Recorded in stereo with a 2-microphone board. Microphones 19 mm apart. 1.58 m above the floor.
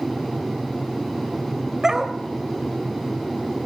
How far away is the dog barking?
About 2 m.